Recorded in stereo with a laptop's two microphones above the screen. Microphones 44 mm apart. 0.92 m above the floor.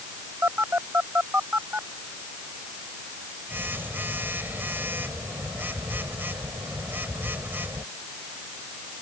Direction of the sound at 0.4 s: 50° right (ahead or behind).